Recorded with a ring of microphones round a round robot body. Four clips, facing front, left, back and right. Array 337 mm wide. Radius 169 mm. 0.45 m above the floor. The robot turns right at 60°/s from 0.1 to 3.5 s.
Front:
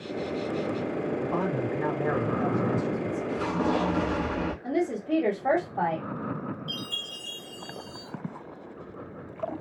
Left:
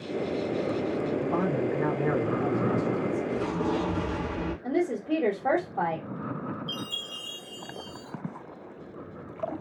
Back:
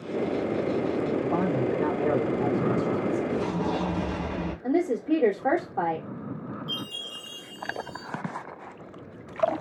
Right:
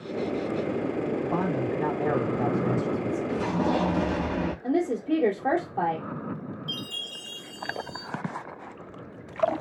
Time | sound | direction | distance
1.2 | a man speaking | 135° left | 2.5 m
3.3 | an explosion | 85° right | 1.4 m
4.6 | a woman speaking | 150° right | 1.3 m
6.7 | a chime | 70° right | 2 m